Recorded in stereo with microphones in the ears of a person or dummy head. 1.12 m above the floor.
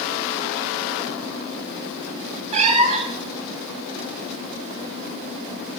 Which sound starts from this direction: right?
A cat meowing, at 2.5 s.